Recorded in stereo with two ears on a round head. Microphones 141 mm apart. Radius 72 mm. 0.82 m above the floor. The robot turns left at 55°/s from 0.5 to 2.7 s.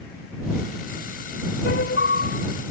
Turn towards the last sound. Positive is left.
turn(degrees=40)